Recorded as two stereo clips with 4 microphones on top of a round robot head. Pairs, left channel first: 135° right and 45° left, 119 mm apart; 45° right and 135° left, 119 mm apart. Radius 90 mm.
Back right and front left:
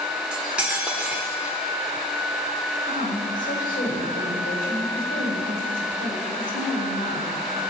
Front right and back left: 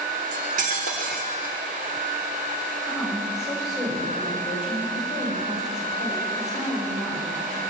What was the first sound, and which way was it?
Cutlery clinking, 125° left.